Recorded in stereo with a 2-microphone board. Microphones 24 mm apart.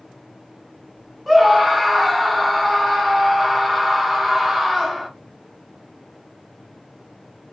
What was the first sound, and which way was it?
A scream, 5° right (ahead or behind).